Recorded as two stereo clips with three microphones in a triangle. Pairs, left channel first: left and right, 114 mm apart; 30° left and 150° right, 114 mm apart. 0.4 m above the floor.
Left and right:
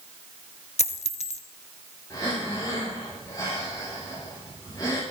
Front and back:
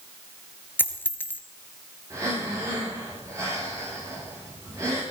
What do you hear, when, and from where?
0.8 s a dropped coin: 100° left, 0.9 m
2.1 s breathing: 145° left, 8 m